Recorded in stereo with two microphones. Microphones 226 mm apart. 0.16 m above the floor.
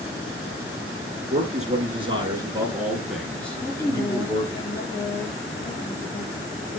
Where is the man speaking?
35° right (ahead or behind), 2.5 m; by 4.6 s 20° left (ahead or behind), 3 m.